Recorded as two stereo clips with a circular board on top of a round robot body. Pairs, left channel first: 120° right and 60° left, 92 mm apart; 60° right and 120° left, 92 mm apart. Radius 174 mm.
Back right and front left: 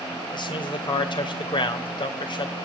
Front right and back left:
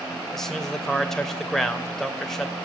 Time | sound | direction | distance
0.3 | a man speaking | 145° right | 2.5 m